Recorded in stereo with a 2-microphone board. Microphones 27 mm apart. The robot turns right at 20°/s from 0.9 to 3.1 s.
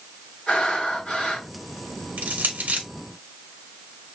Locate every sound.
0.5 s breathing: 45° left (ahead or behind), 3 m; by 1.5 s 35° left (ahead or behind), 3 m
2.2 s crushing: 70° right (ahead or behind), 1.3 m